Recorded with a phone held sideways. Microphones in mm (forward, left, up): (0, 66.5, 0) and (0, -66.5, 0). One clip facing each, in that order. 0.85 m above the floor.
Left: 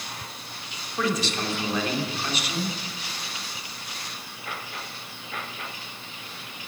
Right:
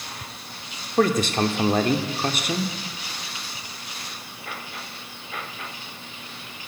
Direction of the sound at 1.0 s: 50° right (ahead or behind).